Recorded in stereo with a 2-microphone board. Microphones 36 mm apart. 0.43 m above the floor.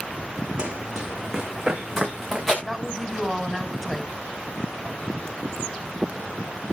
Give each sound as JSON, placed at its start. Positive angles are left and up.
{"t": 0.6, "sound": "running footsteps", "side_deg": -25, "distance_m": 1.6}
{"t": 2.6, "sound": "a woman speaking", "side_deg": 10, "distance_m": 2.0}